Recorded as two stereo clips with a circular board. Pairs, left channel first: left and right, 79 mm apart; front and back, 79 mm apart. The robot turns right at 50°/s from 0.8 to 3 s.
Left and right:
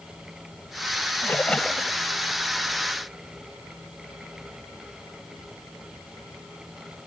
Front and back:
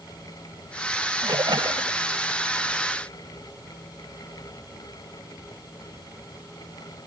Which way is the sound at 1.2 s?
150° left.